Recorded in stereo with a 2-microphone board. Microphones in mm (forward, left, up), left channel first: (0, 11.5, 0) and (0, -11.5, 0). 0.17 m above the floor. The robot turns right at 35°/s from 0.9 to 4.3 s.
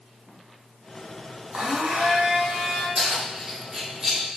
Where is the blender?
105° right, 1.0 m; by 2.9 s 60° right, 1.0 m.